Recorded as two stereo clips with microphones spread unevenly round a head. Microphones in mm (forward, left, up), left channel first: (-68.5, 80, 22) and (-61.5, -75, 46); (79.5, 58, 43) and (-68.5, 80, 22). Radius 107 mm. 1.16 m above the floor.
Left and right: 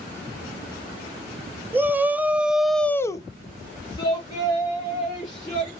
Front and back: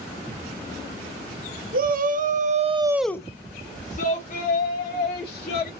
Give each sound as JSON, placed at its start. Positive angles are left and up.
{"t": 1.7, "sound": "a shout", "azimuth_deg": -170, "distance_m": 1.4}